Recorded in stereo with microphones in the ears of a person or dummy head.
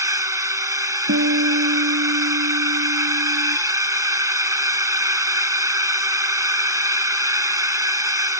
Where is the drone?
25° right (ahead or behind).